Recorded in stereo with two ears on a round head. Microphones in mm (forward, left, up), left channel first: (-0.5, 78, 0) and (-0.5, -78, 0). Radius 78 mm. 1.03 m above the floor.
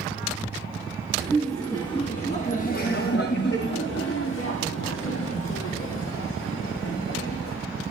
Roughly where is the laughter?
Centre.